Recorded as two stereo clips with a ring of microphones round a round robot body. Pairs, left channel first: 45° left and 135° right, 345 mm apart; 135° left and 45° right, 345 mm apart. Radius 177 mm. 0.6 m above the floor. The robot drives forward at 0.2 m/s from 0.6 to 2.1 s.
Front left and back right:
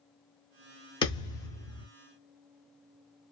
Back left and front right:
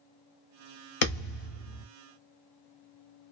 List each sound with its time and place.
1.0 s a thud: 120° left, 0.9 m; by 1.9 s 130° left, 1.0 m